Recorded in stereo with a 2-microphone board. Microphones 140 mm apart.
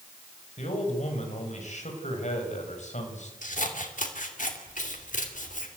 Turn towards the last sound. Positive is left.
turn(degrees=65)  # may be behind; listen again after turning